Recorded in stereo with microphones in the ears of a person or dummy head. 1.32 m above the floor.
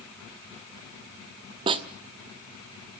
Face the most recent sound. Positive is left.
turn(degrees=-30)  # may be behind; listen again after turning